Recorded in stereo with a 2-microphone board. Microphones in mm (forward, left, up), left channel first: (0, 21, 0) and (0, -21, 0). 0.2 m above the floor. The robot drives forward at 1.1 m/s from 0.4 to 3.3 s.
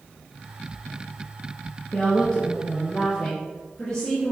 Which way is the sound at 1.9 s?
15° left (ahead or behind).